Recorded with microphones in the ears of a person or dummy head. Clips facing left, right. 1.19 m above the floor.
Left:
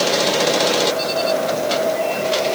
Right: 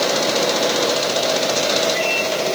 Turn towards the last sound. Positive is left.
No sound to turn to.